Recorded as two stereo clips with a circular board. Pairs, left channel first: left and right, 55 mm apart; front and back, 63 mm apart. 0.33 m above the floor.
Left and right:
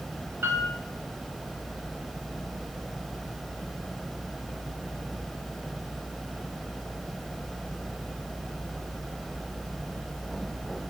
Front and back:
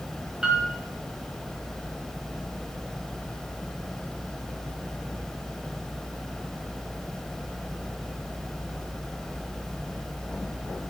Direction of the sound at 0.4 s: 105° right.